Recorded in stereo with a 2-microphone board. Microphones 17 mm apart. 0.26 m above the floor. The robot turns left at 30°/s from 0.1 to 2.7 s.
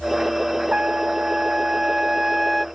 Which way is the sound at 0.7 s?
100° right.